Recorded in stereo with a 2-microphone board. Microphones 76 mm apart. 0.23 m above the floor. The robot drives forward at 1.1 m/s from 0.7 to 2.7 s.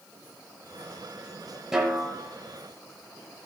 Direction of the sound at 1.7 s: 10° right (ahead or behind).